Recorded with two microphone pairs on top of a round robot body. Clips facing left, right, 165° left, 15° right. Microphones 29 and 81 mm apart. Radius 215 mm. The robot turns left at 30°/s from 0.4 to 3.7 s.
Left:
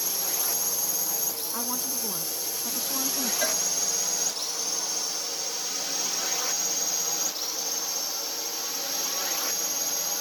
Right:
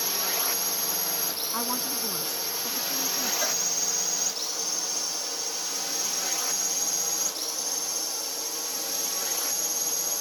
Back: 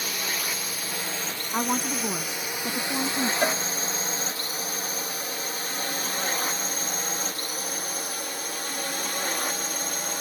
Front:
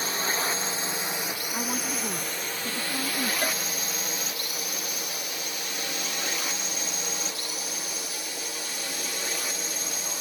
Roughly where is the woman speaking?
Behind.